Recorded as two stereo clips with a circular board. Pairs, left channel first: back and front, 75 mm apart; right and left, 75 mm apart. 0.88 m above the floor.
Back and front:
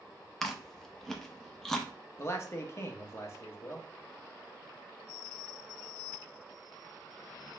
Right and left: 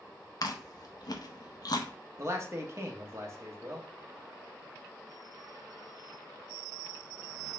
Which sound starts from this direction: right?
Chewing, at 0.4 s.